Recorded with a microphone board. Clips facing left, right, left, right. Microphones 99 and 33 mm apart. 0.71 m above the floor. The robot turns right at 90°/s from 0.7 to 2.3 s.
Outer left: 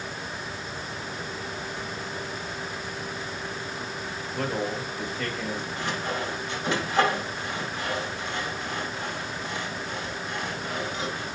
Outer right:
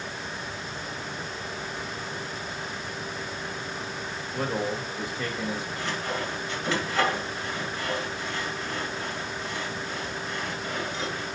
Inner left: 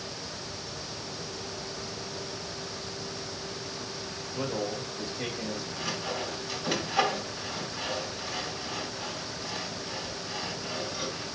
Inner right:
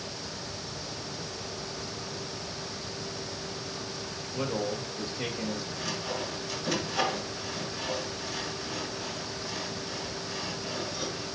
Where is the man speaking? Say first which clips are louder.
Even, inner right 1 dB; 10° right (ahead or behind), 1.8 m.